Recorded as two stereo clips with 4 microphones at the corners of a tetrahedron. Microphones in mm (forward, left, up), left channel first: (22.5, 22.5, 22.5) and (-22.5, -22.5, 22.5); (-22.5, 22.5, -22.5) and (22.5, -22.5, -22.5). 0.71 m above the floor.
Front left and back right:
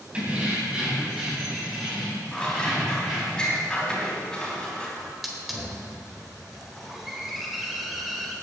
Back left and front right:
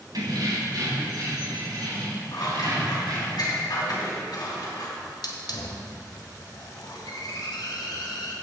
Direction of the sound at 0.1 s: 65° right.